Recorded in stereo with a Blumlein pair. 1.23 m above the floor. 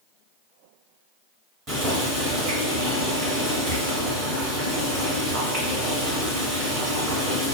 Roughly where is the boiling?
Ahead right.